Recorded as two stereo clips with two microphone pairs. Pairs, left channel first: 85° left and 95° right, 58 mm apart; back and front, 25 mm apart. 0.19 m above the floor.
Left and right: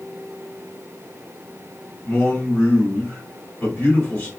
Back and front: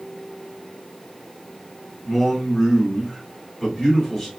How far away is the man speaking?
About 1.7 m.